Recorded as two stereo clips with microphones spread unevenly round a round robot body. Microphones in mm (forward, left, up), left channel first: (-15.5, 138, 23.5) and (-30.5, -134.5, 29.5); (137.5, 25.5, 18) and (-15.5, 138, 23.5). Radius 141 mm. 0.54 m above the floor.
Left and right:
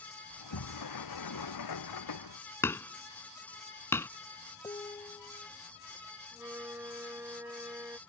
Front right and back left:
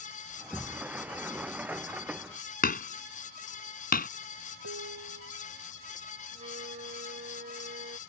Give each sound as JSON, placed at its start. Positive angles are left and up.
{"t": 0.3, "sound": "a sliding door", "azimuth_deg": 60}
{"t": 2.6, "sound": "hammering", "azimuth_deg": 5}
{"t": 4.6, "sound": "dishes clattering", "azimuth_deg": 165}
{"t": 6.3, "sound": "a flute", "azimuth_deg": -175}